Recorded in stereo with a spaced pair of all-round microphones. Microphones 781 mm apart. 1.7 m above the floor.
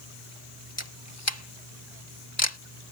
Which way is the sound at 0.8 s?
20° left (ahead or behind).